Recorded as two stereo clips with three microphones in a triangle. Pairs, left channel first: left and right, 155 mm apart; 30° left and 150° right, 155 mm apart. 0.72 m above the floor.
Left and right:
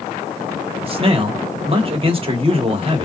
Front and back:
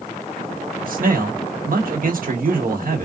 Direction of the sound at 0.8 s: 140° right.